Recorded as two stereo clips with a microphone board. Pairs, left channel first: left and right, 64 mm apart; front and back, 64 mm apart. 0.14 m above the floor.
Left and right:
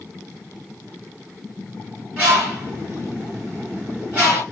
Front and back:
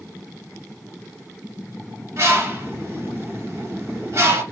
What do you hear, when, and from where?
2.2 s a bird: 150° right, 2.5 m